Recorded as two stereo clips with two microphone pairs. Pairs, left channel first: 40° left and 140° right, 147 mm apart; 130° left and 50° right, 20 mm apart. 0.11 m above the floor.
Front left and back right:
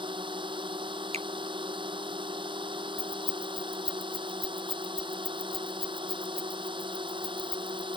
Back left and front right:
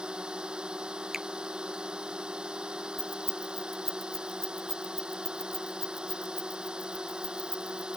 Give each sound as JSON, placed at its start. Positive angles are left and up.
{"t": 0.0, "sound": "a drone", "azimuth_deg": -85}
{"t": 1.1, "sound": "a finger snap", "azimuth_deg": -130}
{"t": 3.0, "sound": "keys jangling", "azimuth_deg": 170}